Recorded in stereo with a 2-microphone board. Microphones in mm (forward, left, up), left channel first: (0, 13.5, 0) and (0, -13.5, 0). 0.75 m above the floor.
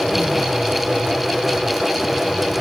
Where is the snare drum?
I don't hear a snare drum.